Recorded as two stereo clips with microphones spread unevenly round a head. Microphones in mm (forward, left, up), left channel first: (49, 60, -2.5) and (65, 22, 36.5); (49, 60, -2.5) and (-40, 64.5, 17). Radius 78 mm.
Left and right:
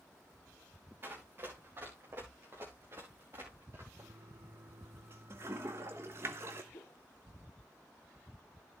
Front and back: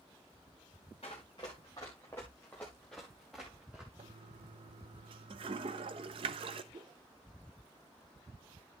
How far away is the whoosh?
About 0.8 m.